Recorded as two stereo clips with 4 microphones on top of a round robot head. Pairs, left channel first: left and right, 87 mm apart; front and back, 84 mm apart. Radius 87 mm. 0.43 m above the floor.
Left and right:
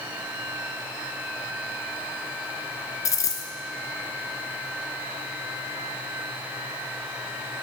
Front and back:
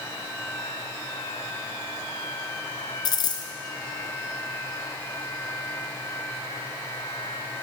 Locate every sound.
3.0 s a dropped coin: 35° left, 1.2 m